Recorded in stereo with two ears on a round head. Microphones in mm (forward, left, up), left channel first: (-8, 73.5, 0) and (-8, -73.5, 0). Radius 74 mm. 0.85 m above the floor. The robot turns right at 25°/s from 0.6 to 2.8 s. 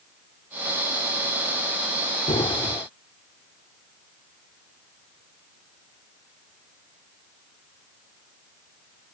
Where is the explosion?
30° left (ahead or behind); by 2.9 s 20° left (ahead or behind).